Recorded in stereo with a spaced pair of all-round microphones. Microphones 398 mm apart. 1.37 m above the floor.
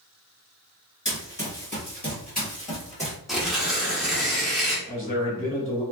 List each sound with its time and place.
1.1 s running footsteps: 30° left (ahead or behind), 1.5 m; by 3.2 s 15° left (ahead or behind), 1.6 m
3.3 s tearing paper: centre (ahead or behind), 0.7 m
4.9 s a man speaking: 30° left (ahead or behind), 1.3 m